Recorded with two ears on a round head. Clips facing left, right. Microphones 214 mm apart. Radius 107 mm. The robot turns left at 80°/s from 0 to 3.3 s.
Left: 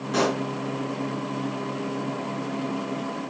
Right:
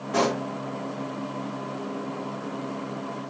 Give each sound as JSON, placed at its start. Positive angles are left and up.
{"t": 0.1, "sound": "a pop", "side_deg": 25, "distance_m": 1.6}